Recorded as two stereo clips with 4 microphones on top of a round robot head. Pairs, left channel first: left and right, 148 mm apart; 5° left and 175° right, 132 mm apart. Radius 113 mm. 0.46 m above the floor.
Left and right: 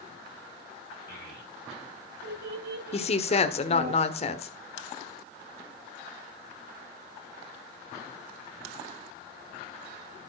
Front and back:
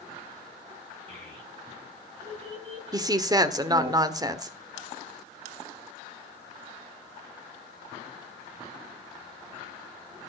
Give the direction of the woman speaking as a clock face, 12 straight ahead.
8 o'clock.